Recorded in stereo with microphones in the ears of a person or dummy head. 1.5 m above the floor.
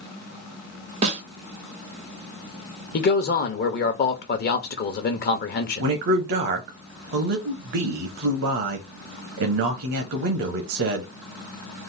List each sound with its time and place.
1.0 s a snare drum: 40° right (ahead or behind), 1.1 m
2.9 s a man speaking: 45° left (ahead or behind), 1.0 m
5.8 s a man speaking: 50° right (ahead or behind), 0.8 m